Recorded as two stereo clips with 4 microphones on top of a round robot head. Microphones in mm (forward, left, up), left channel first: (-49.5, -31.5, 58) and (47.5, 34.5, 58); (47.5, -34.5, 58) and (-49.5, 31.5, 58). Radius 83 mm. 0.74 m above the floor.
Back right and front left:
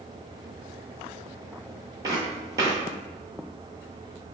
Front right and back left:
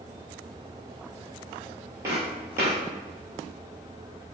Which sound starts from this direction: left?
Footsteps, at 2.0 s.